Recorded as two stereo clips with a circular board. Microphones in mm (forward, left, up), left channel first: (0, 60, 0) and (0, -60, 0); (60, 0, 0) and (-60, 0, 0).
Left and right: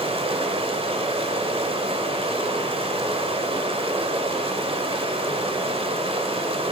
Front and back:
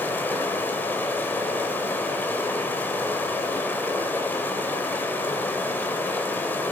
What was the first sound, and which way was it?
Running water, 70° right.